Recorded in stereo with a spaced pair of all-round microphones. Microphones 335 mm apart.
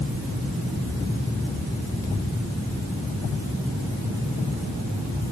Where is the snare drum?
No snare drum in this recording.